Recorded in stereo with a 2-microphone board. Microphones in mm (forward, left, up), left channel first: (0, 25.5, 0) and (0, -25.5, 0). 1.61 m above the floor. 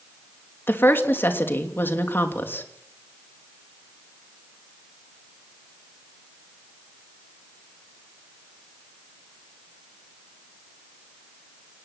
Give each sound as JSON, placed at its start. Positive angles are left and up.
{"t": 0.7, "sound": "a woman speaking", "side_deg": 45, "distance_m": 3.0}